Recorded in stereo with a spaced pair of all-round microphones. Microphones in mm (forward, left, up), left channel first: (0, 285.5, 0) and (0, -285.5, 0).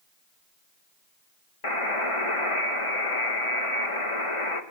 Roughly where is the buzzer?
Left.